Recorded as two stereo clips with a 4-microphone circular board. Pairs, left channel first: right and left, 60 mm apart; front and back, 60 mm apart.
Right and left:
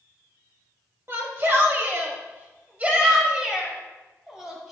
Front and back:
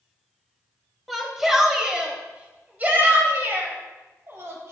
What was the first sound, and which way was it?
A shout, 90° left.